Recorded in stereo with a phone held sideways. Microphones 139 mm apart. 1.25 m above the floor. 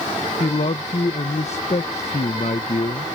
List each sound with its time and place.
0.4 s a man speaking: 55° left (ahead or behind)